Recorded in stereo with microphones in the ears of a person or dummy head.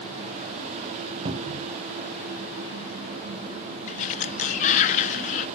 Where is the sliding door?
35° left (ahead or behind), 0.7 m.